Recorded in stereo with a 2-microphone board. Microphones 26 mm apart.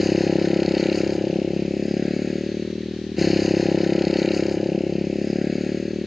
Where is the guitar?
No guitar in this recording.